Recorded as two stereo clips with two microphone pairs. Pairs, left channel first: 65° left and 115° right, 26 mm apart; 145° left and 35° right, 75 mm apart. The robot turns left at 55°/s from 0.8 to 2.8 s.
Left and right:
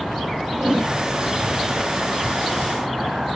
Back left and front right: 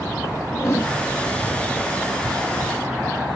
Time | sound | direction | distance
0.5 | a whoosh | 170° right | 1.5 m